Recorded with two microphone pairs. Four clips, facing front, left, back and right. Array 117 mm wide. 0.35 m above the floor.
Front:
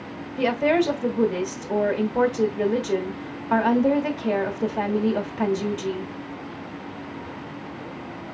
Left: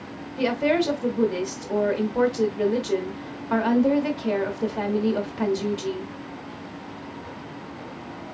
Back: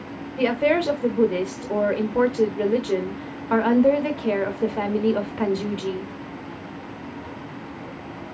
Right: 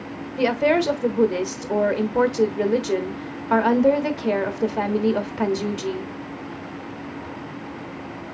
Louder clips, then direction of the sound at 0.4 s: Right 3 dB, even; 100° right.